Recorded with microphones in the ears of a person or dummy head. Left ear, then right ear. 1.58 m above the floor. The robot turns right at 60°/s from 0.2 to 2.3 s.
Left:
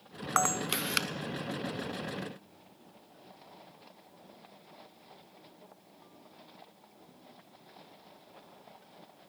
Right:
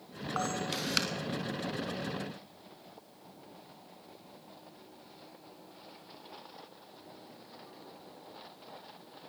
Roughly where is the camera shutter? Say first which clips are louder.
Left 5 dB; behind left.